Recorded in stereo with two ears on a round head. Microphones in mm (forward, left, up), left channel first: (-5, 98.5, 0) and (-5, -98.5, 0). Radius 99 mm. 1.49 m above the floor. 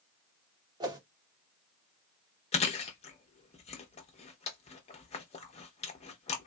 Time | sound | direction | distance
0.8 | a whoosh | 20° right (ahead or behind) | 0.7 m
2.5 | chewing | 30° left (ahead or behind) | 0.7 m